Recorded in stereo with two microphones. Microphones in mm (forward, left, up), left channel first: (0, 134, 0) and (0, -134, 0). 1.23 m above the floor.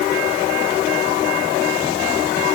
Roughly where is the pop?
No pop in this recording.